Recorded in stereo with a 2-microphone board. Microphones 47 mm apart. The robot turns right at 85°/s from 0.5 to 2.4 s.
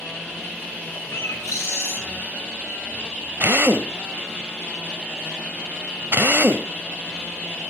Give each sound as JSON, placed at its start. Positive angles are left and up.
{"t": 1.1, "sound": "a bird", "azimuth_deg": 55, "distance_m": 6.5}
{"t": 3.4, "sound": "a drill", "side_deg": -50, "distance_m": 0.8}